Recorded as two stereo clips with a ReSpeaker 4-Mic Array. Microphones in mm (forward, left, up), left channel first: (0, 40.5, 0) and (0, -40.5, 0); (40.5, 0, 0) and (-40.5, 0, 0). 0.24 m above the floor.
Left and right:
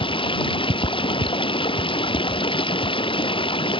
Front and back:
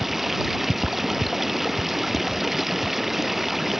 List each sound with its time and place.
0.0 s running water: 95° left